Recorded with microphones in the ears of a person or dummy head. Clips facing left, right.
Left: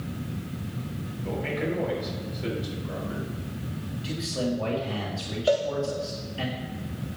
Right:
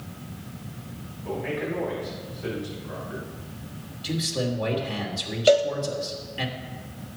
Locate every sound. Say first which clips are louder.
1.2 s a man speaking: even; 50° left (ahead or behind), 5.5 m
4.0 s a man speaking: right 1 dB; 25° right (ahead or behind), 2.5 m
5.5 s a cowbell: right 5 dB; 40° right (ahead or behind), 0.6 m